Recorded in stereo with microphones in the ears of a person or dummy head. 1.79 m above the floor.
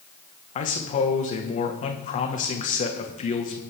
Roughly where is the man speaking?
Left.